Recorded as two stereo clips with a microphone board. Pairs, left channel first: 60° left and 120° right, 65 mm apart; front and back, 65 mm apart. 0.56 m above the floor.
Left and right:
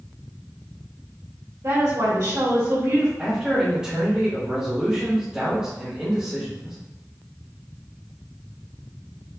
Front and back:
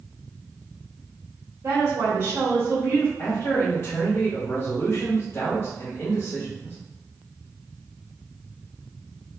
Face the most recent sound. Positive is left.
turn(degrees=-45)